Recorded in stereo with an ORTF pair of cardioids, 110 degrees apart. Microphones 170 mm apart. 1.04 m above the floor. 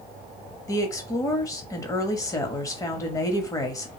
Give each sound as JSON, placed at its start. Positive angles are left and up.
{"t": 0.7, "sound": "a woman speaking", "azimuth_deg": 20, "distance_m": 1.1}